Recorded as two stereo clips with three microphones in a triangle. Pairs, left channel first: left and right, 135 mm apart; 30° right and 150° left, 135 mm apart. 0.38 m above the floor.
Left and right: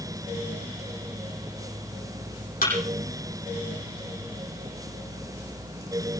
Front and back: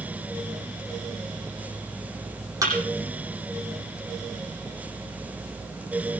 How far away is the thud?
About 9 m.